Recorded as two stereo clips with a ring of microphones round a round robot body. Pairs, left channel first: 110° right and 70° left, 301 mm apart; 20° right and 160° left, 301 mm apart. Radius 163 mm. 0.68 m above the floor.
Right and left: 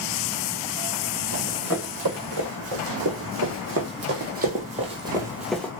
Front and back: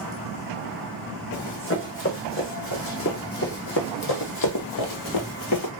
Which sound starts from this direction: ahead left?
Running footsteps, at 1.3 s.